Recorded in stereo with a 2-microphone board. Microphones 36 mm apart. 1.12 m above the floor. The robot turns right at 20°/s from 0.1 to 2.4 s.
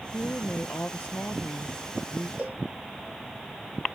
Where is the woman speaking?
70° left; by 2.3 s 110° left.